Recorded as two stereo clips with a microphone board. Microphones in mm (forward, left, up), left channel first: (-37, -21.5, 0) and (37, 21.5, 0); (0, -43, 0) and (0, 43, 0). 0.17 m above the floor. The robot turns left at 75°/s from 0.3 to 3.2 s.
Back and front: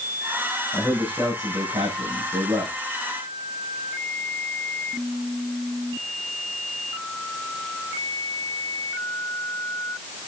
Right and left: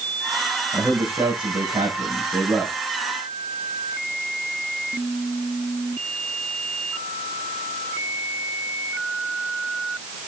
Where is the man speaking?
130° left, 6 m; by 2.8 s 20° right, 6 m.